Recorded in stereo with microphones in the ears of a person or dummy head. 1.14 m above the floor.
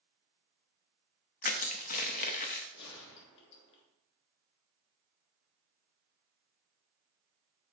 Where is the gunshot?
60° left (ahead or behind), 1.7 m.